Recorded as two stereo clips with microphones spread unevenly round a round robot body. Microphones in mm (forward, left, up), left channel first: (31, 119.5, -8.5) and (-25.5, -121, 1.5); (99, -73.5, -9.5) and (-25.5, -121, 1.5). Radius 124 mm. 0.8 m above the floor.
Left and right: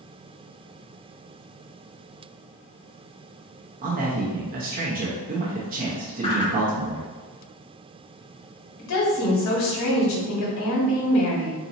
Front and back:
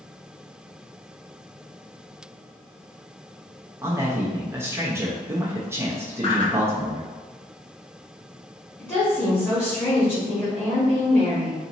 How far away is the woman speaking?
About 1.4 m.